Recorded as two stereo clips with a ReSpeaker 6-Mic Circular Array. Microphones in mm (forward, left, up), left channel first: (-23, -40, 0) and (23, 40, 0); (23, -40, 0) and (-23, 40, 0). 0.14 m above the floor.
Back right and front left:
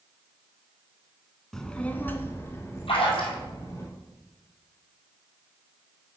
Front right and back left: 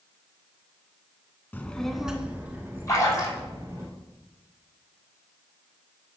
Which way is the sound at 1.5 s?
50° right.